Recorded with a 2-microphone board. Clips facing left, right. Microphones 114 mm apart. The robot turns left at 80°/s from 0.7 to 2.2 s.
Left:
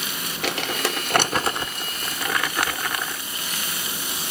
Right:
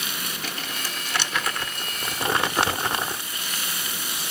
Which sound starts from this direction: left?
Crumpling, at 0.4 s.